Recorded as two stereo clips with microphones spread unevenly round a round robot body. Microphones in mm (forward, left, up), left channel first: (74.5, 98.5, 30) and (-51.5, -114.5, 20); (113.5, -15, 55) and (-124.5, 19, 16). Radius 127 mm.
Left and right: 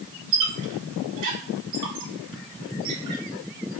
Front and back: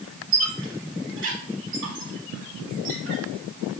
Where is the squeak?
145° right, 1.9 m.